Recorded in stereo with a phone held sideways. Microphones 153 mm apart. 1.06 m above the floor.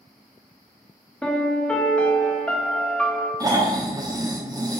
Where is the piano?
5° left (ahead or behind), 0.5 m.